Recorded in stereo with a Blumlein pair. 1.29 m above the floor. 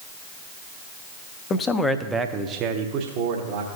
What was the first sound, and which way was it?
A man speaking, 25° left.